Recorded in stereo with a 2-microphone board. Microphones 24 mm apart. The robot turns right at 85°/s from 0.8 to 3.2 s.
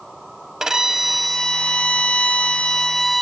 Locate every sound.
0.6 s a violin: 35° right, 0.8 m; by 3.2 s 170° left, 0.8 m